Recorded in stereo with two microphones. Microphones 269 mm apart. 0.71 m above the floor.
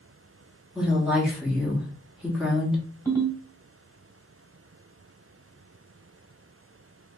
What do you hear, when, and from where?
0.8 s a woman speaking: 5° right (ahead or behind), 1.5 m
3.0 s a ringtone: 5° left (ahead or behind), 1.7 m